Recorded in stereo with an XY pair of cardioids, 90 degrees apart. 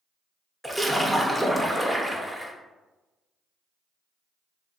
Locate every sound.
0.6 s a splash: straight ahead, 0.6 m